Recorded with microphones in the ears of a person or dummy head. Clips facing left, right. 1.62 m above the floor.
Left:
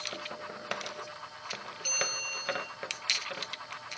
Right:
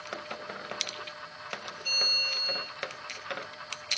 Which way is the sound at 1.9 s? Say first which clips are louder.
Left 4 dB; 55° left (ahead or behind).